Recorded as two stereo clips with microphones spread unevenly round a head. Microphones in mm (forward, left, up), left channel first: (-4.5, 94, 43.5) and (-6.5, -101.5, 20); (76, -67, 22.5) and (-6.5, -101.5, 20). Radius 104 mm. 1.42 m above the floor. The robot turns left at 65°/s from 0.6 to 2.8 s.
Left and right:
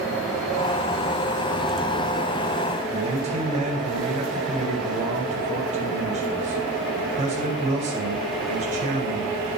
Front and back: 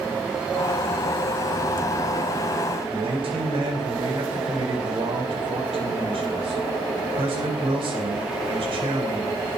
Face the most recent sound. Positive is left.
turn(degrees=-150)